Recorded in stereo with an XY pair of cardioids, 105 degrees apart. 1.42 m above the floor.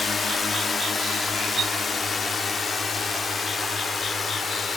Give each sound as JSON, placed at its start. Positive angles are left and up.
{"t": 0.0, "sound": "a drone", "azimuth_deg": 40}